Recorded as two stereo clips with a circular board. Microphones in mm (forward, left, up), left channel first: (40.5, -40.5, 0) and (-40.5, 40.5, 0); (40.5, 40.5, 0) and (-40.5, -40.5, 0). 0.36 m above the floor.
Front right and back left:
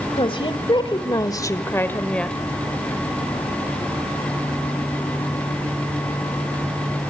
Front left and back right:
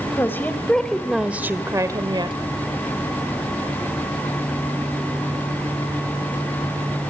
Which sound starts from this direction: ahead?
A woman speaking, at 0.2 s.